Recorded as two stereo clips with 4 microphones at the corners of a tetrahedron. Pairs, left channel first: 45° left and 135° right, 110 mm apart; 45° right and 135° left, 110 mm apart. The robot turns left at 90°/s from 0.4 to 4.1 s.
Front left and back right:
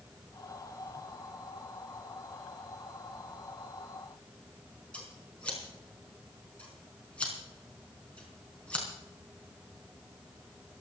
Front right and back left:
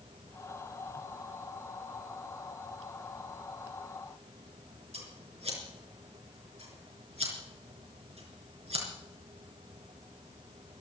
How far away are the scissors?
About 4.5 m.